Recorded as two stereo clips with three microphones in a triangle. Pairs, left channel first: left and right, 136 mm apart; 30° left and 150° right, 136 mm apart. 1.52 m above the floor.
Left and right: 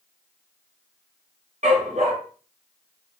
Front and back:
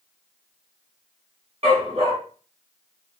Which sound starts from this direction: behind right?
A dog barking, at 1.6 s.